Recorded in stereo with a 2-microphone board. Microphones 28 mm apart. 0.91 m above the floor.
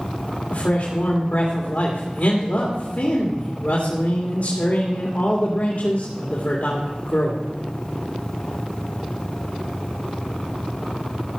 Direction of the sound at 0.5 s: 75° left (ahead or behind).